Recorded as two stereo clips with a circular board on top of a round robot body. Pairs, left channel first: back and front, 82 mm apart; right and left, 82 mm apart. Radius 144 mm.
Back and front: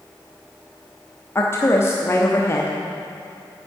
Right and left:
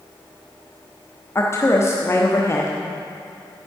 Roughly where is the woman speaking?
Behind right.